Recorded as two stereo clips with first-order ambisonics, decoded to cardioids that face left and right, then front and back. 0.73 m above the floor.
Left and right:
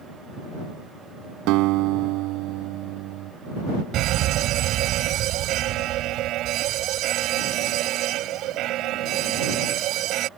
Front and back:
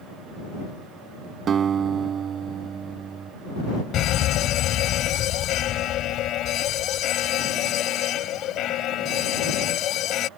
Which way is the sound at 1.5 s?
120° right.